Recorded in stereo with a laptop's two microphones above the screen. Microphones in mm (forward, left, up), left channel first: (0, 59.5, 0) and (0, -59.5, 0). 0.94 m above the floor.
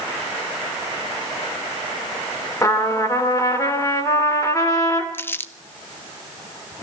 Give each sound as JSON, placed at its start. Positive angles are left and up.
{"t": 2.6, "sound": "a trumpet", "side_deg": 25, "distance_m": 3.5}
{"t": 5.1, "sound": "crumpling", "side_deg": 15, "distance_m": 0.7}